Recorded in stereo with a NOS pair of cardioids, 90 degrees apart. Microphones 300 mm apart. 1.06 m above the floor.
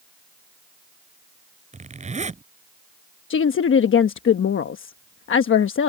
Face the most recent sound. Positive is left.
turn(degrees=45)